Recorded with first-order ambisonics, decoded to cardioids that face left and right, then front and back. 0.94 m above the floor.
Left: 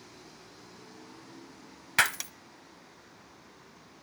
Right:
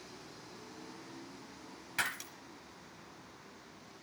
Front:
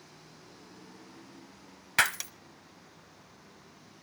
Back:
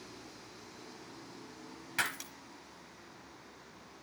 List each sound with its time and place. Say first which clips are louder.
2.0 s breaking glass: left 10 dB, front 8 dB; 50° left, 1.0 m